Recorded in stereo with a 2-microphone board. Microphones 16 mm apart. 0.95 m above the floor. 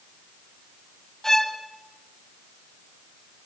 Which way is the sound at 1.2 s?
20° left (ahead or behind).